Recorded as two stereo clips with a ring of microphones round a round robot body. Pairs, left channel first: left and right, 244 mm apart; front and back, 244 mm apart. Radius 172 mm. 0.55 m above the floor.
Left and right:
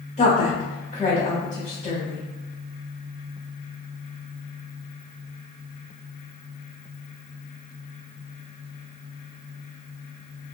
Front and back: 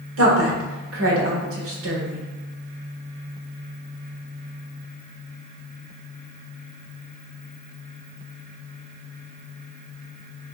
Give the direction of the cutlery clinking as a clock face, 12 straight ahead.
I don't hear cutlery clinking.